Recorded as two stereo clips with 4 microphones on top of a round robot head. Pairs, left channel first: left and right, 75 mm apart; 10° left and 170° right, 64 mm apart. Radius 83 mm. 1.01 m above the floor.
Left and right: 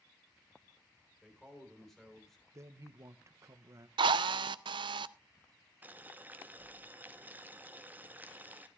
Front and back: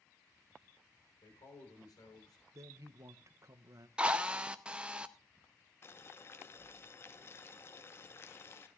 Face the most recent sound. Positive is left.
turn(degrees=-30)